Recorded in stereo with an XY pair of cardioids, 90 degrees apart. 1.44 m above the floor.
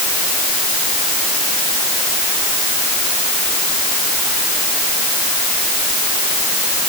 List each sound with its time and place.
Only background noise.